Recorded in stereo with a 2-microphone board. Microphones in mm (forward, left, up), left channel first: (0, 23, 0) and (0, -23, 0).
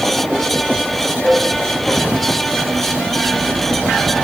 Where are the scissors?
No scissors in this recording.